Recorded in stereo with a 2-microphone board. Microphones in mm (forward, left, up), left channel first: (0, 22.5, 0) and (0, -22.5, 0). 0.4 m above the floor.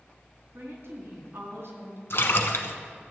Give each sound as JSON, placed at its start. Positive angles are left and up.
{"t": 0.5, "sound": "a woman speaking", "side_deg": -70, "distance_m": 3.5}
{"t": 2.1, "sound": "a splash", "side_deg": 70, "distance_m": 1.0}